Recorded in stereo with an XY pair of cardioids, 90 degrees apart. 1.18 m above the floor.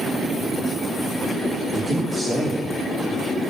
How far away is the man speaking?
About 2.5 m.